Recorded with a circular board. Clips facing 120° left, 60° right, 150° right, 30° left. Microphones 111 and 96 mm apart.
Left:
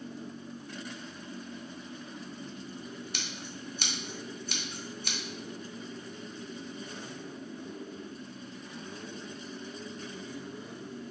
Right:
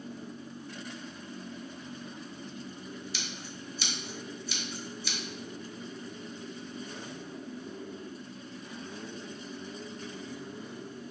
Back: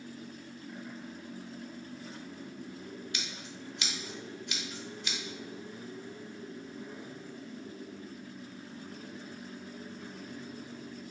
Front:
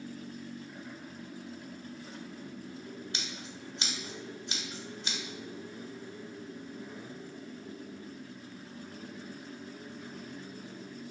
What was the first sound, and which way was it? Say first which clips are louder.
Scissors: even, even; 90° left.